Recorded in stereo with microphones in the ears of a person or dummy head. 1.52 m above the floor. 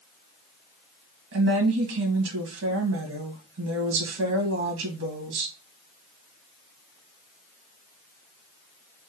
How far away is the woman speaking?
About 1.7 m.